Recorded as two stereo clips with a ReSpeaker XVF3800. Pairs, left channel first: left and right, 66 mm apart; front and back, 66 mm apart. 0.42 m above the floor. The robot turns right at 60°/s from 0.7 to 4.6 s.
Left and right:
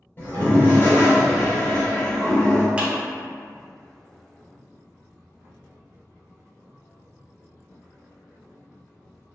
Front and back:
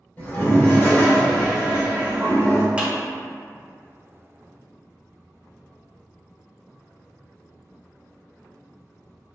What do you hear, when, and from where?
0.2 s a toilet flushing: 50° left, 1.0 m; by 2.7 s 165° left, 1.0 m
2.8 s a clap: 130° right, 0.6 m; by 2.9 s 125° right, 0.6 m